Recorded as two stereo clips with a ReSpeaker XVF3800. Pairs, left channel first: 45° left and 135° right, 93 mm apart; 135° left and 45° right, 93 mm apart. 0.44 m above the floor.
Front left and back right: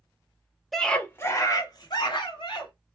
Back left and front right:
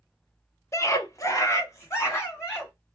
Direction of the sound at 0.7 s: 135° left.